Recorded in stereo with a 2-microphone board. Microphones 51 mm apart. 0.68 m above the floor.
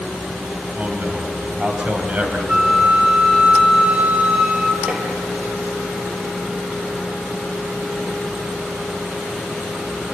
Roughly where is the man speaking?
Right.